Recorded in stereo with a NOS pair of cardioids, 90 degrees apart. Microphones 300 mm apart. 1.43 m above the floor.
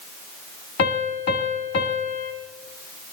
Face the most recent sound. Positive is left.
turn(degrees=55)